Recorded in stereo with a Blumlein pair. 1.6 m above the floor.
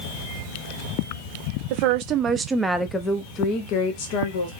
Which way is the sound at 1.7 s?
45° right.